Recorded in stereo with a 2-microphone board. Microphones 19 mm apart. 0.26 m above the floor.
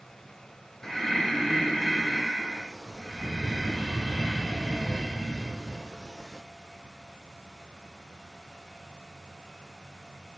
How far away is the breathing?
About 1.8 m.